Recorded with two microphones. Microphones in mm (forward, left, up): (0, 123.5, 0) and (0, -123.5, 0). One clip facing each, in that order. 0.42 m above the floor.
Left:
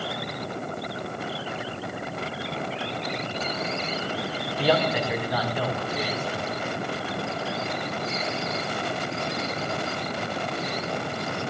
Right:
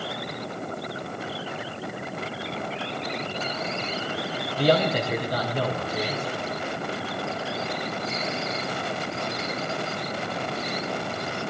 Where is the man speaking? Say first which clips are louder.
Right 2 dB; 40° right (ahead or behind), 3 m.